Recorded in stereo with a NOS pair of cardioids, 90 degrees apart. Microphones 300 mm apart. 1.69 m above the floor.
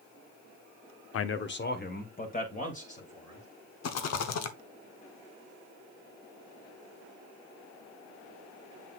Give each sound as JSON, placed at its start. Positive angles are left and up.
{"t": 1.1, "sound": "a man speaking", "azimuth_deg": 50, "distance_m": 0.7}
{"t": 3.8, "sound": "a rattle", "azimuth_deg": 60, "distance_m": 1.0}